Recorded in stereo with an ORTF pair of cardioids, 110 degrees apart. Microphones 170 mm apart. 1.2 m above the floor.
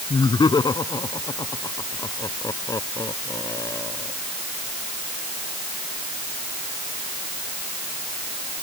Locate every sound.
0.1 s laughter: 25° left; by 4.1 s 20° left